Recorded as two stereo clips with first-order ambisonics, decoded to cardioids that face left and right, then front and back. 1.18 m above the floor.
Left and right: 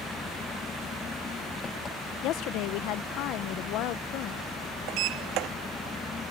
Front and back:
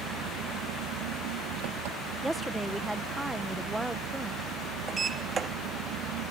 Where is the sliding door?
115° right.